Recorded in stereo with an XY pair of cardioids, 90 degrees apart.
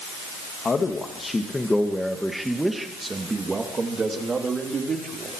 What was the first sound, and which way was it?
A man speaking, 40° left.